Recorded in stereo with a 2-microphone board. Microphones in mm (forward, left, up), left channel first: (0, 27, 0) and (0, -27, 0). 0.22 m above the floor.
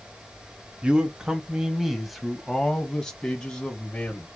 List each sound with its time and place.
0.8 s a man speaking: 20° right (ahead or behind), 1.2 m; by 4.3 s 20° left (ahead or behind), 1.9 m